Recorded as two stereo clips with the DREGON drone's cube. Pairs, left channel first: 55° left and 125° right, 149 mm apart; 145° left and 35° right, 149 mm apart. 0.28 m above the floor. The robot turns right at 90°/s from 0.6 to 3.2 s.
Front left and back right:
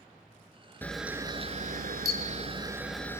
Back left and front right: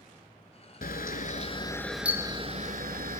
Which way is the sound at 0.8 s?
130° left.